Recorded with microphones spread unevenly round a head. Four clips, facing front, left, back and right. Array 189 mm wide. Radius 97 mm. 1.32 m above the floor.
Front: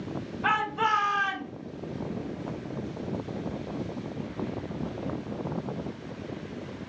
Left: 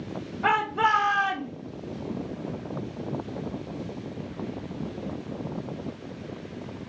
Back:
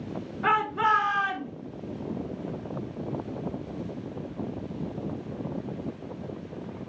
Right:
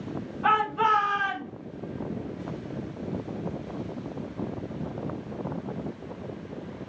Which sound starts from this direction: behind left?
A shout, at 0.4 s.